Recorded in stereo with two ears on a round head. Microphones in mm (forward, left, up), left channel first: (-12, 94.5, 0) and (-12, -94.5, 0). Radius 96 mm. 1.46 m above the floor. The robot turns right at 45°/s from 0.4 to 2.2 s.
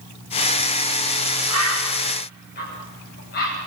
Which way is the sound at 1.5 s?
80° left.